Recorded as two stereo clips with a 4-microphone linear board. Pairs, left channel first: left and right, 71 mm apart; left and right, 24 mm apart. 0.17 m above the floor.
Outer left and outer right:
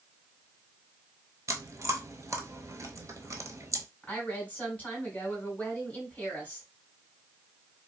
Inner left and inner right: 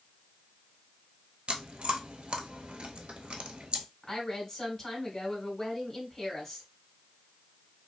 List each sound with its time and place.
1.5 s chewing: 50° right (ahead or behind), 0.6 m
4.0 s a woman speaking: 20° left (ahead or behind), 1.7 m